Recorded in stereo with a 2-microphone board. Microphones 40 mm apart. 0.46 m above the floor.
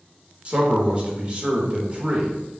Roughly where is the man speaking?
Right.